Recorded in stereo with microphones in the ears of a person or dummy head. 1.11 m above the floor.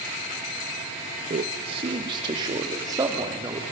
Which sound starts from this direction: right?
A man speaking, at 1.3 s.